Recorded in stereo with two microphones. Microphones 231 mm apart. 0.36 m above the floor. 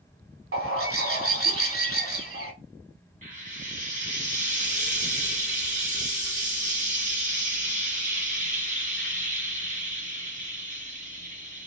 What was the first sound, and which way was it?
A bird, 65° right (ahead or behind).